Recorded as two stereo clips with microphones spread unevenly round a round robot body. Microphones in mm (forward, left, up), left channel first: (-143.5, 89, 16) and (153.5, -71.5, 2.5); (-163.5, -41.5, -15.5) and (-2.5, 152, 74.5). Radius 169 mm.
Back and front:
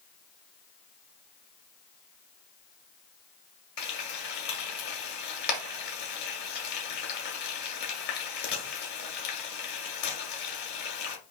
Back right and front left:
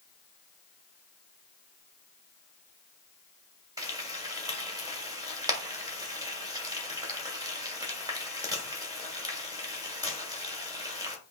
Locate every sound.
3.8 s frying: 150° left, 1.5 m